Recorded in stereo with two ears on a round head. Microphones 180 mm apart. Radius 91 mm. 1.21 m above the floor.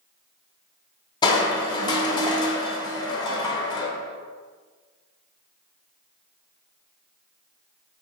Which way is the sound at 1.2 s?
25° left (ahead or behind).